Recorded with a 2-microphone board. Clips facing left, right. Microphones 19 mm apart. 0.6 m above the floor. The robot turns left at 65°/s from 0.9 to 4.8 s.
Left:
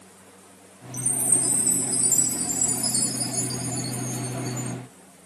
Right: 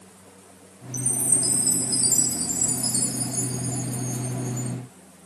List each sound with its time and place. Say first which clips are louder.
0.9 s a chime: even; 60° right; by 4.8 s 50° left